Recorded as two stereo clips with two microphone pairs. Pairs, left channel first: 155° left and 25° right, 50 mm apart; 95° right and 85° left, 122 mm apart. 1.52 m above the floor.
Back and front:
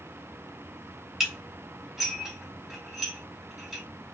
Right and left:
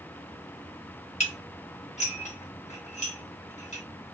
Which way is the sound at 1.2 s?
105° right.